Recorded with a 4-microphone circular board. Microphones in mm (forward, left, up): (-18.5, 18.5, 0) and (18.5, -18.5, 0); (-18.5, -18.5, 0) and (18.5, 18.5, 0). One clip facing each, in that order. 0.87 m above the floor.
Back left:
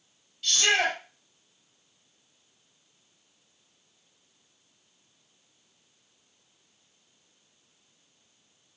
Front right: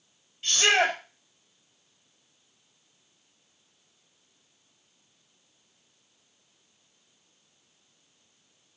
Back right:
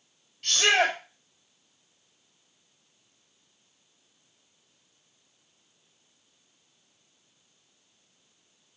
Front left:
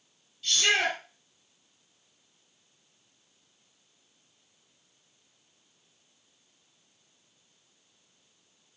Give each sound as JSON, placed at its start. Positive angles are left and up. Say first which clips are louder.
{"t": 0.4, "sound": "a shout", "louder": "front right 2 dB, back right 3 dB", "azimuth_deg": -105, "distance_m": 5.0}